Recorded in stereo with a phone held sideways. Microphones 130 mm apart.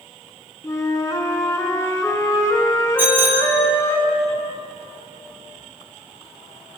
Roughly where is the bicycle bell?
Centre.